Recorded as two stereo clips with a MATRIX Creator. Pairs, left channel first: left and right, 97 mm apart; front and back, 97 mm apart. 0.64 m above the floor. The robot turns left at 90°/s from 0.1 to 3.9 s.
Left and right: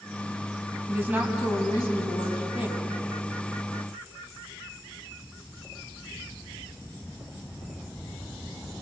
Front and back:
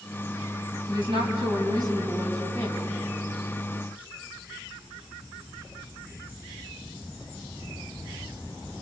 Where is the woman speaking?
140° right, 4.5 m; by 2.9 s 40° left, 4.5 m.